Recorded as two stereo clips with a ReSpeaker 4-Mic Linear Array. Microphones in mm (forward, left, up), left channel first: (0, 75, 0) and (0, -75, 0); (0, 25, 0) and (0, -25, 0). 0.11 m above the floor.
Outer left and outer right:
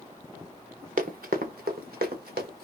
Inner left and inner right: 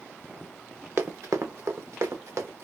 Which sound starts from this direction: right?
Running footsteps, at 1.0 s.